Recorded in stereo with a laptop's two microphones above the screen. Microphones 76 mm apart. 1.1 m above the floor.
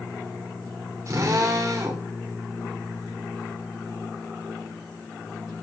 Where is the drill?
45° right (ahead or behind), 2.5 m.